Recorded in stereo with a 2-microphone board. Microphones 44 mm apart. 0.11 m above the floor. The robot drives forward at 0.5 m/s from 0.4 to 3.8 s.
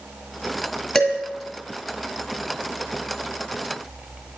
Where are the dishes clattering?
5° left (ahead or behind), 1.5 m.